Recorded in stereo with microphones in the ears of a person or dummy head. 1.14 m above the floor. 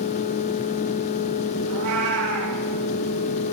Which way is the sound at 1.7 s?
80° right.